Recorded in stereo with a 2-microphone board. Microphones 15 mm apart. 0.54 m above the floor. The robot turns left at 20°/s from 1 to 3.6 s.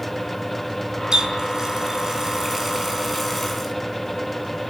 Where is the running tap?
135° right, 4 m; by 3.7 s 175° left, 4 m.